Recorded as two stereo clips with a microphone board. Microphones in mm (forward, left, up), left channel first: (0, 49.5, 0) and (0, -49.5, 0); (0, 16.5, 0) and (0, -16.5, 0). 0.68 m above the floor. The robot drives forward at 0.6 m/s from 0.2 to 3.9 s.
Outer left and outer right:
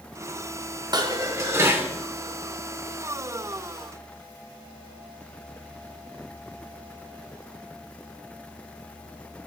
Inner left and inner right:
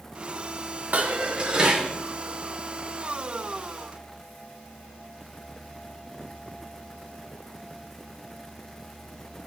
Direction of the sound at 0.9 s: 45° right (ahead or behind).